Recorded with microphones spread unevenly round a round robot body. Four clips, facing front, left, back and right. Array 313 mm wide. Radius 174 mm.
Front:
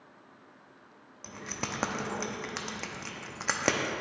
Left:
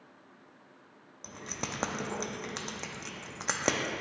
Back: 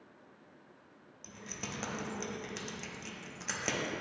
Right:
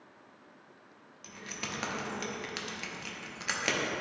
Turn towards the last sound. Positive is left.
turn(degrees=30)